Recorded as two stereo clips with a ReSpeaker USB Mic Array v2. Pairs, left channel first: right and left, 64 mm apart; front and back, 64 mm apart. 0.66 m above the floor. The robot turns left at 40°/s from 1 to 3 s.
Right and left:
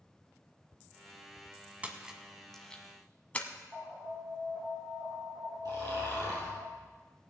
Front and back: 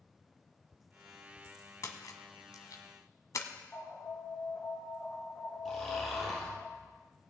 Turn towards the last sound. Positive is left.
turn(degrees=85)